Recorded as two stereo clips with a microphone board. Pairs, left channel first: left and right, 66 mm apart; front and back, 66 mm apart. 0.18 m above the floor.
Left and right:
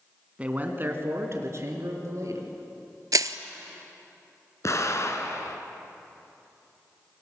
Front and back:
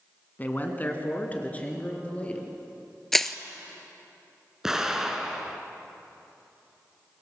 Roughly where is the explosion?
Left.